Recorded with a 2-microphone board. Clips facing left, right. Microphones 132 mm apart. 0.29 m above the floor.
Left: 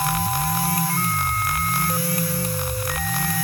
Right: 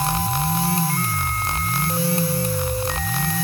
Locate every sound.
Only background noise.